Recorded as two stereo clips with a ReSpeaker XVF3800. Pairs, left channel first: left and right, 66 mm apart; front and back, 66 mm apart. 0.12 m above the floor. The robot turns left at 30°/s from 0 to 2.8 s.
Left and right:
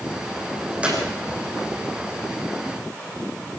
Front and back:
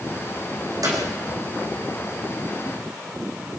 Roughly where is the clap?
Behind.